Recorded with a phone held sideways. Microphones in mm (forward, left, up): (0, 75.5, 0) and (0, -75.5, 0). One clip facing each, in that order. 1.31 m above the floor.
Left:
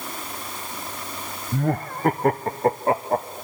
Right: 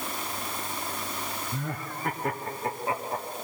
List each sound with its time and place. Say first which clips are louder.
1.5 s laughter: left 10 dB; 55° left (ahead or behind), 0.6 m